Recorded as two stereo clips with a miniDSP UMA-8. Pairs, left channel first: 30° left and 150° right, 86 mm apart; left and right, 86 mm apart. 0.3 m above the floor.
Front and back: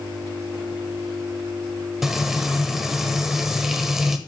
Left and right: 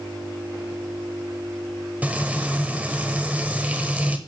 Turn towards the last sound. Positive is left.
turn(degrees=-70)